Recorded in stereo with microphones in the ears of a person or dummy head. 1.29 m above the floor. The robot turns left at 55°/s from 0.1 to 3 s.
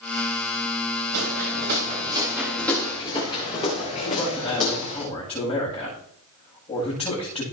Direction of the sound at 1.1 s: 80° right.